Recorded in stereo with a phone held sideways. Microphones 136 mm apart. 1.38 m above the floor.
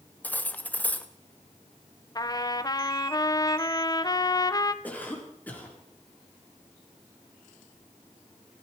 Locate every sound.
0.2 s cutlery clinking: 10° left (ahead or behind), 0.8 m
2.1 s a trumpet: 30° left (ahead or behind), 0.7 m
4.8 s a cough: 10° left (ahead or behind), 4 m